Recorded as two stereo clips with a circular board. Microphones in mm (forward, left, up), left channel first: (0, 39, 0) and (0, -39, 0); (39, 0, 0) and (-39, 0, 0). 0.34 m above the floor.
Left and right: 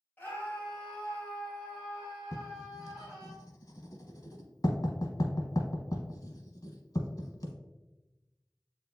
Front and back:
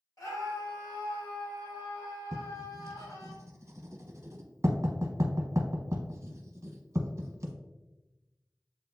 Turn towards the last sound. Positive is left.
turn(degrees=130)